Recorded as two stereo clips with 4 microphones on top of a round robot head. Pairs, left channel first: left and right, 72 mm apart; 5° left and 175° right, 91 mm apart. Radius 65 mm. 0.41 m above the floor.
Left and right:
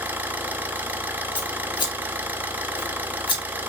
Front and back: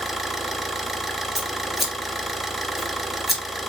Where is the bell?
I don't hear a bell.